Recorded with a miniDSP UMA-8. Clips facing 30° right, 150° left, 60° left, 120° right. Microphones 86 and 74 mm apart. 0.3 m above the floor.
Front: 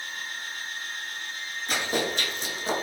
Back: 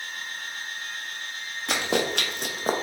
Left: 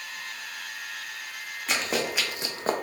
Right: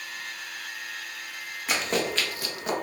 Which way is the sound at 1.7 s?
155° left.